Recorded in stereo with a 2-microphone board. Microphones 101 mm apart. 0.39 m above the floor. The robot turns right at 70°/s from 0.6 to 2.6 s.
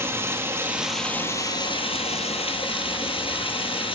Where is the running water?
25° right, 1.4 m; by 4.0 s 115° left, 1.4 m.